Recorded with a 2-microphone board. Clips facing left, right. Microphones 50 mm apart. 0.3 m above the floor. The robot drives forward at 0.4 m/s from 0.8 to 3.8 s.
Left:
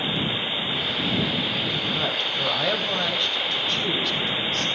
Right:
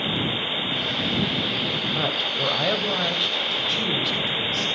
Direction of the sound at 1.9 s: 5° right (ahead or behind).